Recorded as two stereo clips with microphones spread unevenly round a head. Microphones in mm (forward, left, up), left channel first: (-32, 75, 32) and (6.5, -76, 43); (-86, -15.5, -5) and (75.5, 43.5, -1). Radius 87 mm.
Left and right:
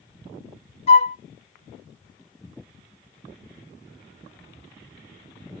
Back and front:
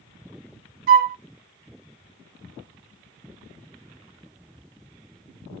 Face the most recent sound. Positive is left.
turn(degrees=50)